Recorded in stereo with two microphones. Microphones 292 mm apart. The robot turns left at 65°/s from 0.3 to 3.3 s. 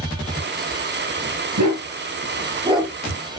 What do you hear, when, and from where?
1.6 s a dog barking: 80° right, 3.5 m; by 2.9 s 5° right (ahead or behind), 3.5 m